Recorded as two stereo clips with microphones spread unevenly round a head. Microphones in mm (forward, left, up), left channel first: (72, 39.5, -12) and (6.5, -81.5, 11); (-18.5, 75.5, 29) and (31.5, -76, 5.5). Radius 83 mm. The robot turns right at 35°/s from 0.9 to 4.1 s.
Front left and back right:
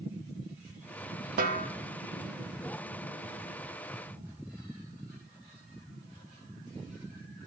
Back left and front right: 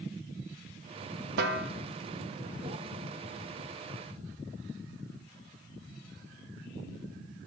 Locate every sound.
1.4 s a snare drum: 95° right, 1.1 m; by 1.7 s 85° right, 1.1 m